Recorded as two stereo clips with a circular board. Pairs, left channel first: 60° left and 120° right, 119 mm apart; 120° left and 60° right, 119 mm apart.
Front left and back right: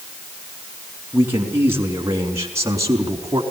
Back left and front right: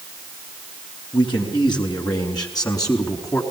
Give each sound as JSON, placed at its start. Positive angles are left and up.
{"t": 1.1, "sound": "a man speaking", "azimuth_deg": 170, "distance_m": 5.0}